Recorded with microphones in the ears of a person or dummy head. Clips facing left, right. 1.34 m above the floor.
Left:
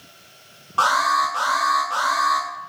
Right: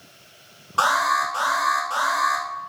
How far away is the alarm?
About 3 m.